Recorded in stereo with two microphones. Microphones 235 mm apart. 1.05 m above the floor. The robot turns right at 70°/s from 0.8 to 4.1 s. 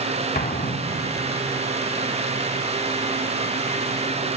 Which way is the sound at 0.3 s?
130° left.